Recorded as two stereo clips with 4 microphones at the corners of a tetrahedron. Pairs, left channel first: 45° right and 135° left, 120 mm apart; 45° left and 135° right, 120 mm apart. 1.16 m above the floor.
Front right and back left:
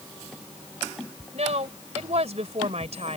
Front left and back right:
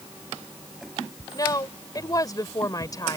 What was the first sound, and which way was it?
A woman speaking, 105° left.